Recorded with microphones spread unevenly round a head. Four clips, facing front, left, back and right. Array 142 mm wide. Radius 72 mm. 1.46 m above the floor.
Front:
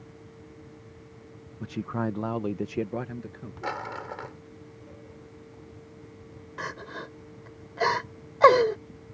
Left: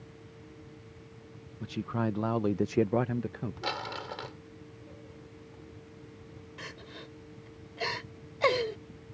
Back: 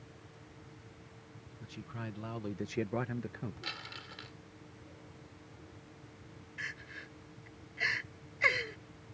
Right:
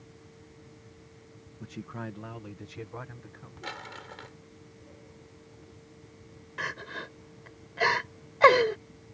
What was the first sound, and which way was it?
A man speaking, 15° left.